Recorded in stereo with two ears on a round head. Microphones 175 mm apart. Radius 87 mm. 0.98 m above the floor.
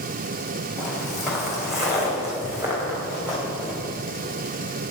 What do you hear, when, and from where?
0.8 s footsteps: centre (ahead or behind), 3.5 m; by 3.8 s 5° right (ahead or behind), 5.5 m